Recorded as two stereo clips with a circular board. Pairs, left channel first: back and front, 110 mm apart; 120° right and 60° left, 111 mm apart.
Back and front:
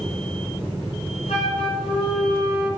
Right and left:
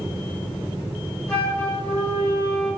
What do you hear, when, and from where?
1.3 s a flute: 160° left, 5 m